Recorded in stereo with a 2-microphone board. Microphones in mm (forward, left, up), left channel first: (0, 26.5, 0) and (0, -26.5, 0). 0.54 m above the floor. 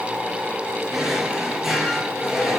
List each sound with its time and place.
0.9 s a drawer: 5° right (ahead or behind), 4 m